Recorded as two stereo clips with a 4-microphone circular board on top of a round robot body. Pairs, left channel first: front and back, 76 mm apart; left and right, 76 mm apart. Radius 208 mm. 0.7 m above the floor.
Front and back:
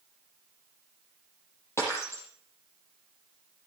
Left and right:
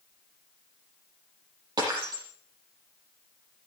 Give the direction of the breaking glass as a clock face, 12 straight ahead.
2 o'clock.